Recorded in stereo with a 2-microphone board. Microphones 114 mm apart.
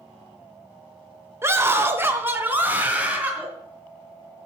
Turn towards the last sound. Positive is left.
turn(degrees=-10)  # may be behind; listen again after turning